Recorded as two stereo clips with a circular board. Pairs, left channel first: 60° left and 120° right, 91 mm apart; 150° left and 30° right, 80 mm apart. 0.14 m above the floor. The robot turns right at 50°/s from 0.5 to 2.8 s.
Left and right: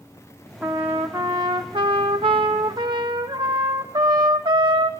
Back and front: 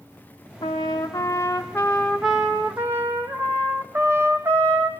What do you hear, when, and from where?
0.6 s a trumpet: 160° left, 1.0 m; by 4.9 s 90° right, 1.0 m